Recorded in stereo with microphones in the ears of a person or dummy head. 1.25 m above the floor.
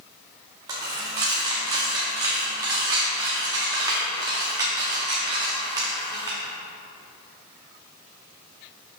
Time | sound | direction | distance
0.7 | a dropped coin | 20° right (ahead or behind) | 0.9 m